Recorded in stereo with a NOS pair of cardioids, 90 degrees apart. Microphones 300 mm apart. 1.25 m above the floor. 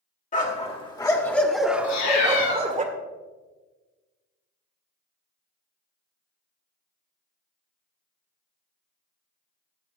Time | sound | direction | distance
0.3 | a dog barking | 25° left | 2 m
1.8 | a cat meowing | 65° left | 4 m